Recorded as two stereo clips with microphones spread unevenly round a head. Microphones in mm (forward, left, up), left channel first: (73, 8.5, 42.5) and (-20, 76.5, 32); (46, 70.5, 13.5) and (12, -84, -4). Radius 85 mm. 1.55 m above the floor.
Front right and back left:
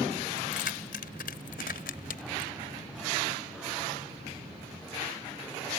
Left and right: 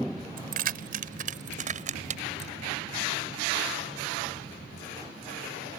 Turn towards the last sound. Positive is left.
turn(degrees=-55)